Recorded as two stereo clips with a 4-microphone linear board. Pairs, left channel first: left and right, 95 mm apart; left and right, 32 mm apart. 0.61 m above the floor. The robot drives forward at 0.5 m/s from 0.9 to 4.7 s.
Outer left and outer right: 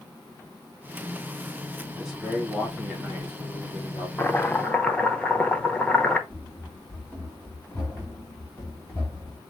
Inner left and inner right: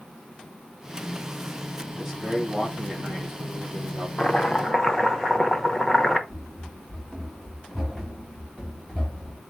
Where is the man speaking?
5° right (ahead or behind), 2.5 m; by 4.1 s centre (ahead or behind), 3.5 m.